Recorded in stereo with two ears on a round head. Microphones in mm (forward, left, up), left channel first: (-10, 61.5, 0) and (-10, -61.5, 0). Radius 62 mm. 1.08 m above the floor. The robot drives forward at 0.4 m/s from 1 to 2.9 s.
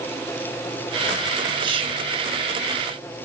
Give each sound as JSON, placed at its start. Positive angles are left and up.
{"t": 1.6, "sound": "whispering", "side_deg": -35, "distance_m": 1.1}